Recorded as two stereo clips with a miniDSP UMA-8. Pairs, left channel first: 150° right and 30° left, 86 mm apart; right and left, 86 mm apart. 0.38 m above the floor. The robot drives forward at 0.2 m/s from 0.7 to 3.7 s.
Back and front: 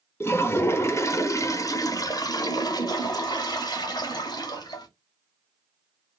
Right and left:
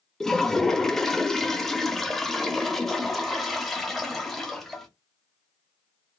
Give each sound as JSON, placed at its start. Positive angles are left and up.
{"t": 0.2, "sound": "a toilet flushing", "azimuth_deg": -170, "distance_m": 0.5}